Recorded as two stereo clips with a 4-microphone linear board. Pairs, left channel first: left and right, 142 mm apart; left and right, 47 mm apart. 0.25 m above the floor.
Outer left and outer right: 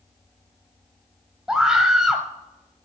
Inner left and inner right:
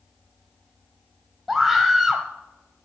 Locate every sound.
1.5 s a scream: 5° right (ahead or behind), 0.9 m